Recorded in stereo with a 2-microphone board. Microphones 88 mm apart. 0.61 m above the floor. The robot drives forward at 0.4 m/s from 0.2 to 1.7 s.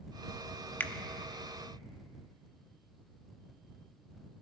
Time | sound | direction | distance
0.8 | a finger snap | 20° left (ahead or behind) | 0.6 m